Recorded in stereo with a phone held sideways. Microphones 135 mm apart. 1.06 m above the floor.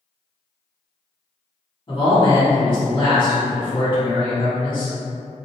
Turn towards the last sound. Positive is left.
turn(degrees=35)  # may be behind; listen again after turning